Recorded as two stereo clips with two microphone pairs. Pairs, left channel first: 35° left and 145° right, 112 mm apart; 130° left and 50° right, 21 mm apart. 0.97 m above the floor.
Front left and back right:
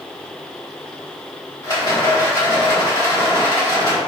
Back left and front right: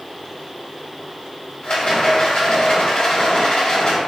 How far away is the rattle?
About 1.1 m.